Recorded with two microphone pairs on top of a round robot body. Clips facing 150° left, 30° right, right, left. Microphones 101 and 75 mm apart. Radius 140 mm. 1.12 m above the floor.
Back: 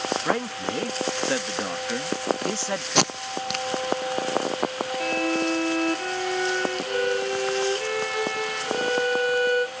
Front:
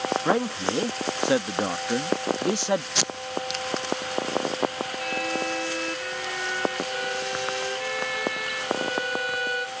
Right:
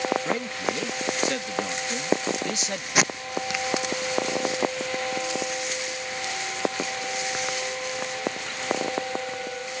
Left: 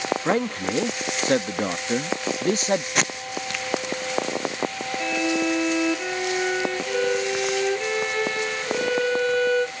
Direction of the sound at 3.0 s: 175° right.